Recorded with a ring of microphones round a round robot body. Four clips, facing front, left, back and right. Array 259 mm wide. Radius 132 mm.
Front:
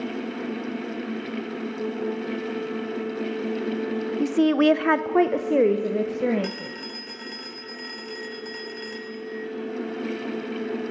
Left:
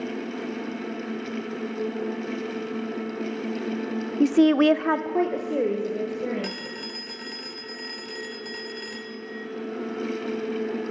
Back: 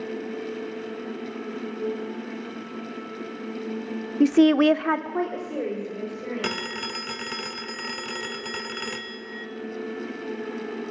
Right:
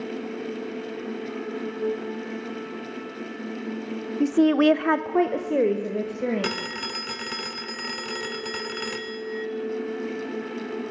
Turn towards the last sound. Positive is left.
turn(degrees=-140)